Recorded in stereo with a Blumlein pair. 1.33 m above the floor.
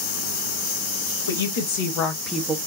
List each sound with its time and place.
1.3 s a woman speaking: 65° left, 1.4 m; by 2.6 s 20° right, 0.8 m